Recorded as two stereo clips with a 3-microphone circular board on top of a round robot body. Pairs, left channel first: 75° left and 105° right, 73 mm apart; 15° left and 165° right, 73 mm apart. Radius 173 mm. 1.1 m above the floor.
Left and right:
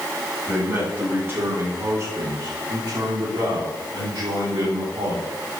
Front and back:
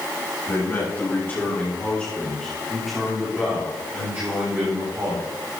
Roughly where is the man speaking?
Ahead right.